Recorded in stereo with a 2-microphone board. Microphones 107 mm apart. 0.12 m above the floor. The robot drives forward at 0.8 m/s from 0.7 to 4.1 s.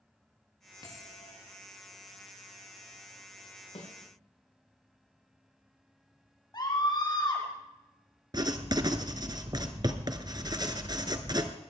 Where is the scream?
45° left (ahead or behind), 5.5 m.